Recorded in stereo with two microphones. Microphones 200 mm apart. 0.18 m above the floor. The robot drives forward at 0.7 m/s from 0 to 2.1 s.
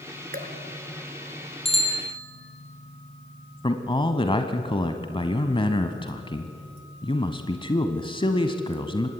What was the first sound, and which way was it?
Dripping, 50° right (ahead or behind).